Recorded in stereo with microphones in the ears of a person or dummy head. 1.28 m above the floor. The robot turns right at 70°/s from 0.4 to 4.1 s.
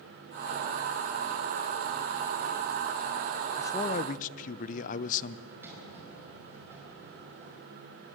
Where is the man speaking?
15° left, 0.7 m; by 5.4 s 50° left, 0.7 m.